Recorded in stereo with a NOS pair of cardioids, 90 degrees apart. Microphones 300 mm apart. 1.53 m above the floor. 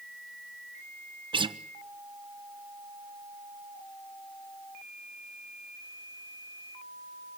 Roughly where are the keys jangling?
I don't hear keys jangling.